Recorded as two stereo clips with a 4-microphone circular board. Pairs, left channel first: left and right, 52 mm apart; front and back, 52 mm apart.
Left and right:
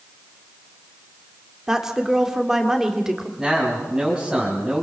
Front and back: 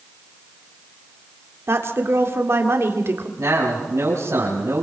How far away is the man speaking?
About 5 m.